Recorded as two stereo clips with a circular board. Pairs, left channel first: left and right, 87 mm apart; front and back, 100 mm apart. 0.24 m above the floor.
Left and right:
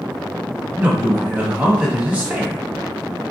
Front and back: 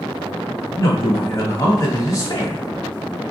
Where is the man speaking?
25° right, 1.4 m.